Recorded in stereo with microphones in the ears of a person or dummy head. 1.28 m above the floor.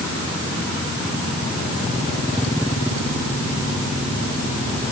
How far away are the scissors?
I don't hear scissors.